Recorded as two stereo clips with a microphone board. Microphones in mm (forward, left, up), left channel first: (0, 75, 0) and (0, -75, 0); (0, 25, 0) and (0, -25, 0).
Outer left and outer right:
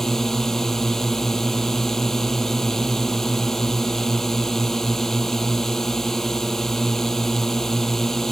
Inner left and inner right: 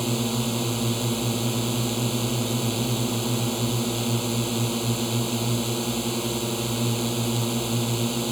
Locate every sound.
0.0 s a drone: 5° left (ahead or behind)